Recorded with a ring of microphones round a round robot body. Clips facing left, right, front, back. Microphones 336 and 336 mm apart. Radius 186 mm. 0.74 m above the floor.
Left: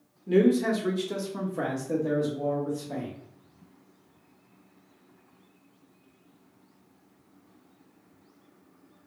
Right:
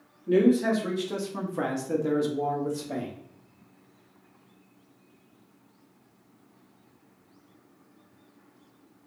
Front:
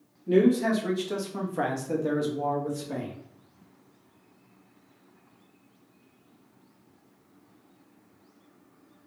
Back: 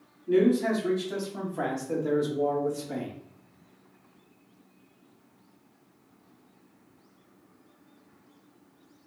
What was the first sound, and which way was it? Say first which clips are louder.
A man speaking: right 1 dB, front 1 dB; 25° left.